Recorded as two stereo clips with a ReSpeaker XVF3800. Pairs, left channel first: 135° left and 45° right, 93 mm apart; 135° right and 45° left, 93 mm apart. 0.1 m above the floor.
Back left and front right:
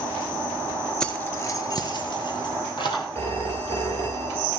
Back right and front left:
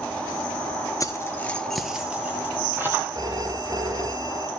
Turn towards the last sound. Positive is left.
turn(degrees=80)